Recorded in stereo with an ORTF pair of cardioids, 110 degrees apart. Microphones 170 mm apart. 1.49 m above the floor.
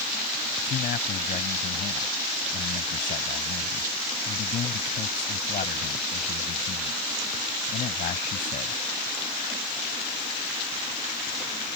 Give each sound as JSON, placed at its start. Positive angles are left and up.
{"t": 0.7, "sound": "a man speaking", "azimuth_deg": 55}